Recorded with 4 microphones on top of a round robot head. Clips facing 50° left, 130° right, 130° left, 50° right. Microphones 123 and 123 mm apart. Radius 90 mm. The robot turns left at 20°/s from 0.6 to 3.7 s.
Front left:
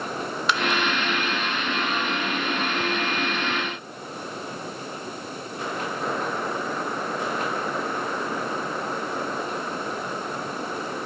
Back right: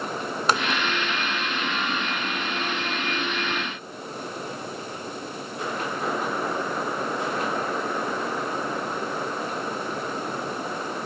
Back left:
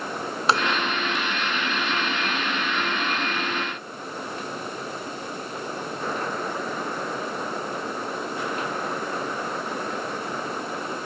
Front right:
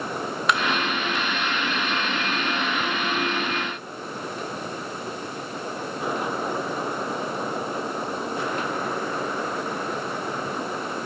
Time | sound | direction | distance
0.5 | tapping | 175° right | 2.0 m